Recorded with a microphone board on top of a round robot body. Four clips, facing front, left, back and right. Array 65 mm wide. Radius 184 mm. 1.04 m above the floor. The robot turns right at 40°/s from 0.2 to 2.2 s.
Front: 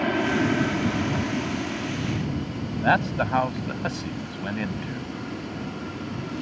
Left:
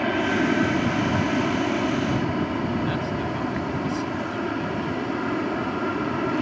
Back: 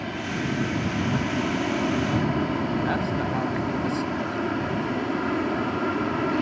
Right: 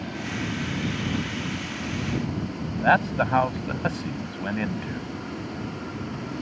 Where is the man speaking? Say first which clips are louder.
Right 5 dB, front 3 dB; 60° right.